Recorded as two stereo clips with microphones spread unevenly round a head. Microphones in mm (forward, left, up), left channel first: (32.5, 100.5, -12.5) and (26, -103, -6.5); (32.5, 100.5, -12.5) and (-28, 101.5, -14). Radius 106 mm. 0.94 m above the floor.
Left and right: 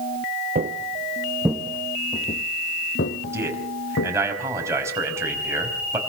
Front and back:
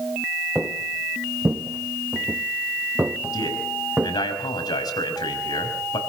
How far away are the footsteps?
About 1.1 m.